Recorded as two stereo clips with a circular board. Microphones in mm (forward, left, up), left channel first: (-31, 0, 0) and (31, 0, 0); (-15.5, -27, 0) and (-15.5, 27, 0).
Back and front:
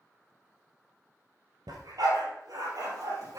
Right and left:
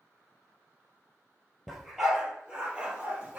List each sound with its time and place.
1.7 s a dog barking: straight ahead, 2.5 m; by 3.4 s 25° left, 3.5 m